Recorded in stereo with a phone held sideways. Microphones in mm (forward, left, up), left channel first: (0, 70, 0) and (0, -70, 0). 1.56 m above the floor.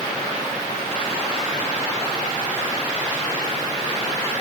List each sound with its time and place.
Only background noise.